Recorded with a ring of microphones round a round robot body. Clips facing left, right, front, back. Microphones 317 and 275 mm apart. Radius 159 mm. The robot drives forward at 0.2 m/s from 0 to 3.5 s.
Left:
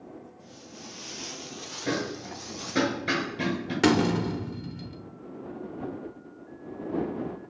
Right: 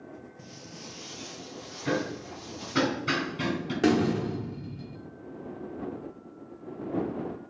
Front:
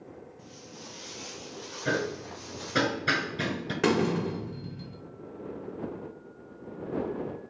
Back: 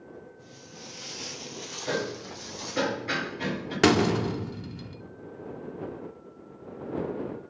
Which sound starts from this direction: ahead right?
Footsteps, at 0.4 s.